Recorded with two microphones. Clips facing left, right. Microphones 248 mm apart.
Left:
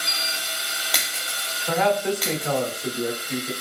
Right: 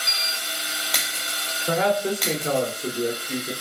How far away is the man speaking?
About 0.9 m.